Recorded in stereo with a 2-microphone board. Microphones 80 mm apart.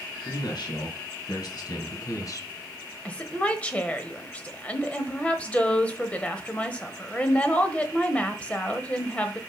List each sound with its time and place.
0.2 s a man speaking: 65° left (ahead or behind), 3.5 m; by 2.5 s 45° left (ahead or behind), 2.0 m
3.0 s a woman speaking: 15° left (ahead or behind), 1.1 m